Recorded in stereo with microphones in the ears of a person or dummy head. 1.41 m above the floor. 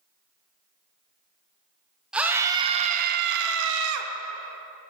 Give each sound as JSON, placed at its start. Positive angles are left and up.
{"t": 2.1, "sound": "a scream", "side_deg": -5, "distance_m": 0.8}